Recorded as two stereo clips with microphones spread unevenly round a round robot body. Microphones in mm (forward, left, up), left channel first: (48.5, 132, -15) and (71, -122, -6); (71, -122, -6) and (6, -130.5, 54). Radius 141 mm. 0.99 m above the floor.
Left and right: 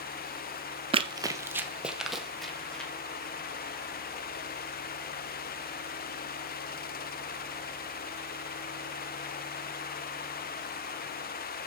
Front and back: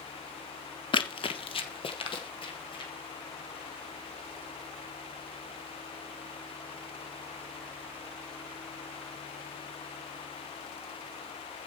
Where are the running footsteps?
30° right, 1.2 m; by 2.9 s 10° left, 3 m.